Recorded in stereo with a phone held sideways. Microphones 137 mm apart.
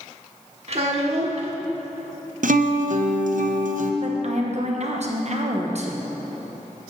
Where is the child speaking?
50° right (ahead or behind), 1.3 m.